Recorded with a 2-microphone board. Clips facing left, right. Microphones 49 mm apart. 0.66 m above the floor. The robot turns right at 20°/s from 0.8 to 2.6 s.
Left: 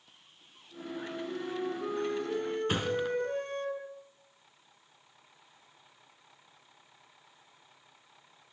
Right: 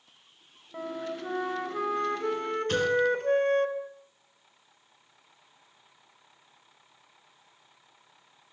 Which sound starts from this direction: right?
A flute, at 0.7 s.